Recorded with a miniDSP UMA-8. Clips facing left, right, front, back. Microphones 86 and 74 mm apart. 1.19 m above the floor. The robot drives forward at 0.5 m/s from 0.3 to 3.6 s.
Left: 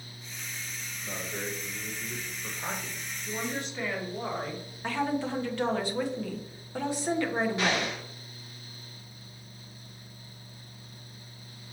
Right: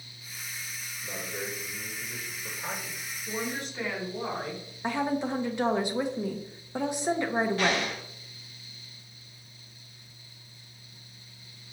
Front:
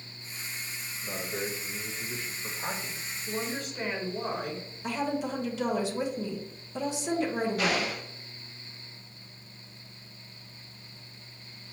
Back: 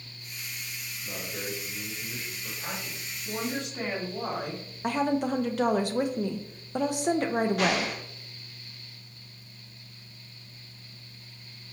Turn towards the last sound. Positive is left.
turn(degrees=160)